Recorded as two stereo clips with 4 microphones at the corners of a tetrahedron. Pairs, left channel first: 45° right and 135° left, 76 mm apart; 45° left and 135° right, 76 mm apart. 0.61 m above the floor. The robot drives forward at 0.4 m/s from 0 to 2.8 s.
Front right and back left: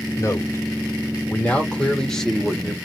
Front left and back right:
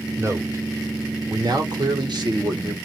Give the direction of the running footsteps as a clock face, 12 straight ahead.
No running footsteps in this recording.